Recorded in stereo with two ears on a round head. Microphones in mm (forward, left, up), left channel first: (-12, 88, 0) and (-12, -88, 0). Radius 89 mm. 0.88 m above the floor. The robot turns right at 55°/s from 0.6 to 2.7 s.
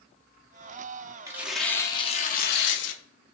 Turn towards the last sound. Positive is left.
turn(degrees=65)